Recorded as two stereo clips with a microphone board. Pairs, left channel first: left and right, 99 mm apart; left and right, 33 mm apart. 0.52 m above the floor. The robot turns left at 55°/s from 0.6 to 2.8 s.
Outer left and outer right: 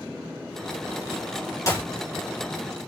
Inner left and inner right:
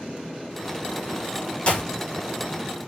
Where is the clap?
35° left (ahead or behind), 5 m; by 1.9 s 20° left (ahead or behind), 5 m.